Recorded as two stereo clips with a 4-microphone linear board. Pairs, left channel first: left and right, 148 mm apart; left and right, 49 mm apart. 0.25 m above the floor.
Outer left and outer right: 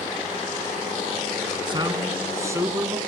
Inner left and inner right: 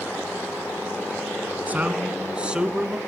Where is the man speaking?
35° right (ahead or behind), 2 m; by 3.0 s 15° right (ahead or behind), 3 m.